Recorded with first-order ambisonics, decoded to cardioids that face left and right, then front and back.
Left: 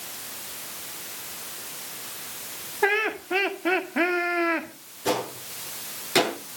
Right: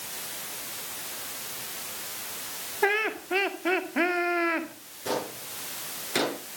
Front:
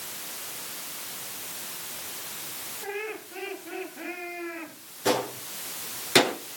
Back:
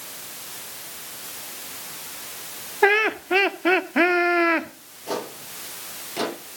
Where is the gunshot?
15° left, 8 m.